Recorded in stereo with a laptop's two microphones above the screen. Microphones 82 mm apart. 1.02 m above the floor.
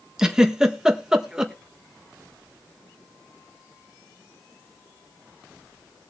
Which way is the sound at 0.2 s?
10° right (ahead or behind).